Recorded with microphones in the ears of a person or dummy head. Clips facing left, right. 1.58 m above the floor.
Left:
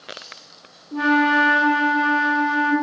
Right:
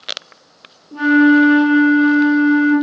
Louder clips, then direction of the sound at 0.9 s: Right 9 dB; 20° right (ahead or behind).